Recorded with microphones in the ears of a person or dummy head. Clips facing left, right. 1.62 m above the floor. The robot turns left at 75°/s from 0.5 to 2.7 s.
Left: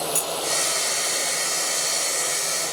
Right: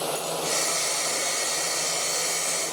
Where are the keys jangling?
50° left (ahead or behind), 1.5 m.